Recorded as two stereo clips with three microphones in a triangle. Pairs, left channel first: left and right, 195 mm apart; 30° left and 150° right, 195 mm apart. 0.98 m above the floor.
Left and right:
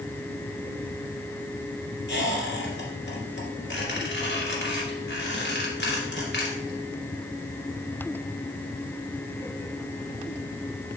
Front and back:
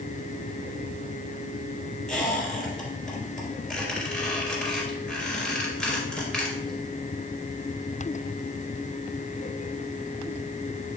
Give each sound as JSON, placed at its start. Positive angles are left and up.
{"t": 2.1, "sound": "a squeak", "azimuth_deg": 115, "distance_m": 2.0}